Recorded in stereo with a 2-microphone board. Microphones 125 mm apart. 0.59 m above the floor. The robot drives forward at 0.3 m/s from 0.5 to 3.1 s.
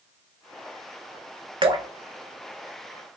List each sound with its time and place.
1.6 s dripping: 45° right (ahead or behind), 0.6 m